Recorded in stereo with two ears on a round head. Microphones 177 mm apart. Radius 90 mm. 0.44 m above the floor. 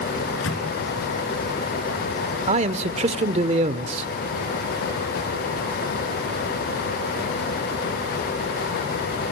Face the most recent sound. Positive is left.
turn(degrees=-35)  # may be behind; listen again after turning